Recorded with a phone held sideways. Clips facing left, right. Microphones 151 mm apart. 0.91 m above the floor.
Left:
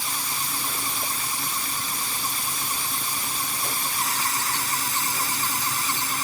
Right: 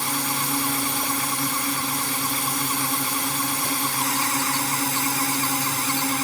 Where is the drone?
60° right (ahead or behind).